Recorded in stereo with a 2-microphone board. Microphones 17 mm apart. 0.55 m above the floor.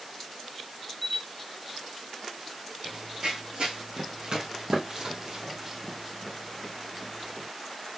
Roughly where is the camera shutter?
Centre.